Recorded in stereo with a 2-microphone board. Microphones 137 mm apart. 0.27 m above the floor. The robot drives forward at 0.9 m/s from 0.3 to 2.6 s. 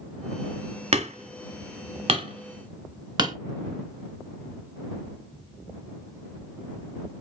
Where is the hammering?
50° right (ahead or behind), 1.0 m; by 3.4 s 30° right (ahead or behind), 1.4 m.